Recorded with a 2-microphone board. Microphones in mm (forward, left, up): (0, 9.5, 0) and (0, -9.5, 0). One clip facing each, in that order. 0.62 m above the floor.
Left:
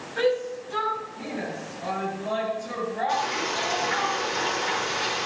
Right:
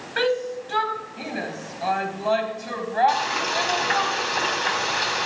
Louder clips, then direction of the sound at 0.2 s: Right 1 dB; 60° right (ahead or behind).